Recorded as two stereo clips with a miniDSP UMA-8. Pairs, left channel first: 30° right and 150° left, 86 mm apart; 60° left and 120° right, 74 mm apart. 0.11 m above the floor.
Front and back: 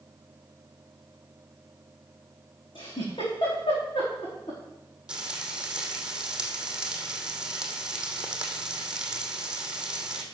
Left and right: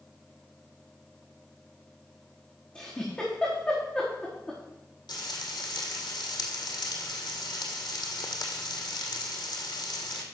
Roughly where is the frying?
Left.